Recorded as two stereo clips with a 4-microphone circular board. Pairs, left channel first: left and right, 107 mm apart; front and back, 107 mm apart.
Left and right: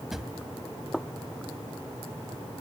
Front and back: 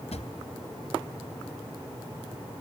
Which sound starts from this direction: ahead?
A drawer, at 0.1 s.